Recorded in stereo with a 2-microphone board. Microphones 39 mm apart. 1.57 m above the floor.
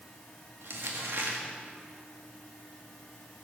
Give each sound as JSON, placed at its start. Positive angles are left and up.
{"t": 0.6, "sound": "crumpling", "side_deg": -70, "distance_m": 2.0}